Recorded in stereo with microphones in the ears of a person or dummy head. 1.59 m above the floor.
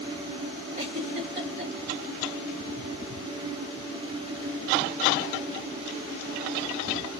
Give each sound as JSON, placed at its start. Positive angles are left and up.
{"t": 0.8, "sound": "a giggle", "side_deg": -50, "distance_m": 2.0}